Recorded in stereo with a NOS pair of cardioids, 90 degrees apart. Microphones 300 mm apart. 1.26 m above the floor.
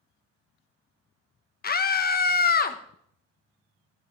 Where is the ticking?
I don't hear ticking.